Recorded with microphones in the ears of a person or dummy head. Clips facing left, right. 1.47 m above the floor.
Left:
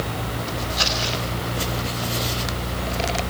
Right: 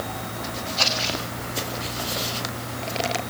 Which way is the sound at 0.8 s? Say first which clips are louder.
Left 1 dB; 35° left (ahead or behind).